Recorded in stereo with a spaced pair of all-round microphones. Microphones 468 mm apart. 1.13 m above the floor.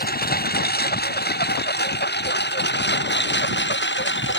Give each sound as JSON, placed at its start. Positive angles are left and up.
{"t": 0.0, "sound": "a lawn mower", "side_deg": 20}